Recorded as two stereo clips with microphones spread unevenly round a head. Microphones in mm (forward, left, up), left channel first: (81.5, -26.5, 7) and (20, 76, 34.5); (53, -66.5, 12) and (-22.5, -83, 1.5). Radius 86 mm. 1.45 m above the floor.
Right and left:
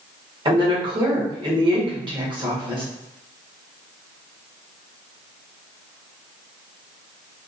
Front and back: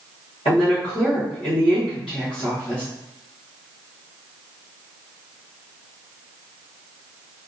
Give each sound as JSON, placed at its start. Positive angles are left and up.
{"t": 0.5, "sound": "a woman speaking", "azimuth_deg": 75, "distance_m": 1.6}